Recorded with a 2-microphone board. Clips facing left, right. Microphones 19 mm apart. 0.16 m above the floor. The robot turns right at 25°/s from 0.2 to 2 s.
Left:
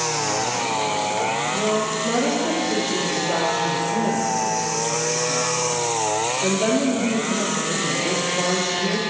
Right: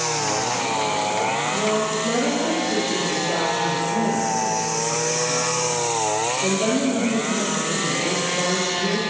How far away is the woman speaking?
About 5.5 m.